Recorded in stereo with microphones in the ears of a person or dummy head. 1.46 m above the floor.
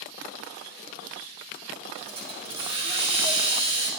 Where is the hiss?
35° right (ahead or behind), 0.8 m.